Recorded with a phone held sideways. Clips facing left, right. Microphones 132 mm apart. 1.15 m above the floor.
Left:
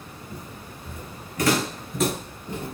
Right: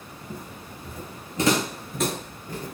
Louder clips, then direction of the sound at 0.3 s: Right 2 dB; 55° right (ahead or behind).